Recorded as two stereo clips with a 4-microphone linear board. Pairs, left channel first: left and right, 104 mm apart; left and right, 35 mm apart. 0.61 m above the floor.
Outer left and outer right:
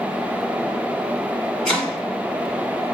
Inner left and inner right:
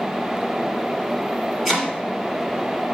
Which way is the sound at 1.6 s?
5° left (ahead or behind).